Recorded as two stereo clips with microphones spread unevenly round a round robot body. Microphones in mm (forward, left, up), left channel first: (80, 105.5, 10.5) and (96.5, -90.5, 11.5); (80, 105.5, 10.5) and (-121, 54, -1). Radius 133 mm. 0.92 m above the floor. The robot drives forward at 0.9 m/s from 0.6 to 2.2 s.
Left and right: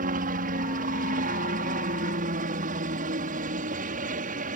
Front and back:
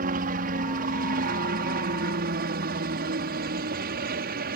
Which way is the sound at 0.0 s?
125° right.